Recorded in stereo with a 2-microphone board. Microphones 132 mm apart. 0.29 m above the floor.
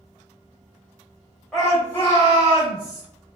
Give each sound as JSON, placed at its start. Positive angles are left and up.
{"t": 1.5, "sound": "a shout", "side_deg": 0, "distance_m": 1.5}